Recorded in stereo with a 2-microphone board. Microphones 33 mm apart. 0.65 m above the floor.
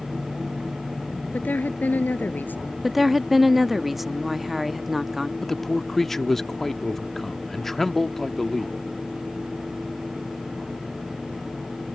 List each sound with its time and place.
1.3 s a woman speaking: 60° left (ahead or behind)
2.8 s a woman speaking: 5° right (ahead or behind)
5.4 s a man speaking: 10° left (ahead or behind)